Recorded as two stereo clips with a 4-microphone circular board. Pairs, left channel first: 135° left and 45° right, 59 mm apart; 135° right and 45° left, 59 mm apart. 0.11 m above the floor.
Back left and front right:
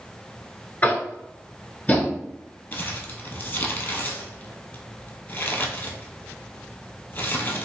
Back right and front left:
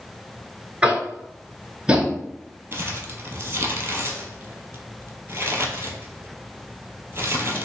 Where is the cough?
No cough in this recording.